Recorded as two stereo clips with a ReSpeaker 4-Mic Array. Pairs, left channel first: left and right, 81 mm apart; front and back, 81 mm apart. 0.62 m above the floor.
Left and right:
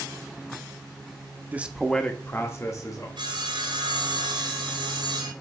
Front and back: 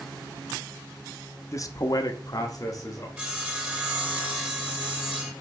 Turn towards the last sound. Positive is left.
turn(degrees=-110)